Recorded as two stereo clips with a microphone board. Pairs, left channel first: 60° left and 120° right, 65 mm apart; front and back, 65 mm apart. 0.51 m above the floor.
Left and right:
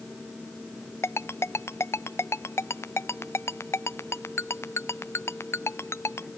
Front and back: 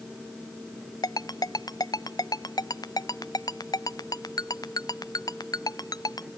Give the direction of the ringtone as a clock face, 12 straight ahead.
12 o'clock.